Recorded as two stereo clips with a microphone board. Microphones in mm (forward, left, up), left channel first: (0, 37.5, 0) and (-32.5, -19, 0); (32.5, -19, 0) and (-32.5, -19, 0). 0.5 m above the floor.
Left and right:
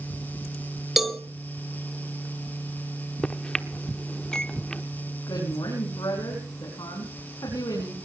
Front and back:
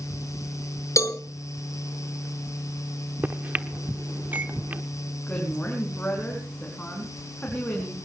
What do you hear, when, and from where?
1.0 s a cowbell: 35° right, 1.7 m
3.2 s a microwave: 135° left, 0.9 m
5.3 s a woman speaking: 70° left, 5 m